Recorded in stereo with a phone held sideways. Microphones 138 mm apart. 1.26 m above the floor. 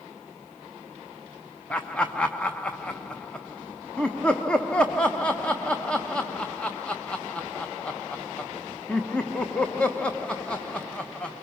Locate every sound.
1.7 s laughter: 5° left (ahead or behind), 1.0 m